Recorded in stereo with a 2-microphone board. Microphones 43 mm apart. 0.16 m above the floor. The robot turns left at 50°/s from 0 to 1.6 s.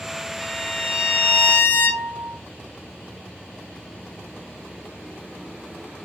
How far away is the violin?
About 2 m.